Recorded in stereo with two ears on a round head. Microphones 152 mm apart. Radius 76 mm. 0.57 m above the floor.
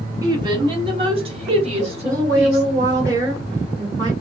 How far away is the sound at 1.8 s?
About 1.2 m.